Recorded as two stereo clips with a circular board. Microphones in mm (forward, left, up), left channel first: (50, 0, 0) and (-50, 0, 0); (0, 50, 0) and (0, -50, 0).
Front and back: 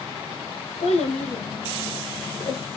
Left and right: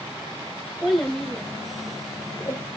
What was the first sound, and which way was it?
A child speaking, straight ahead.